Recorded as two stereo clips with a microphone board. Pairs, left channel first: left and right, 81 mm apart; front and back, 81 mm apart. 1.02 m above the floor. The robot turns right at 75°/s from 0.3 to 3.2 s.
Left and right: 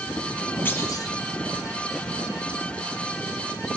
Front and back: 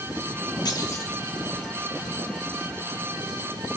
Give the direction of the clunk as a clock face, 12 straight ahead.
11 o'clock.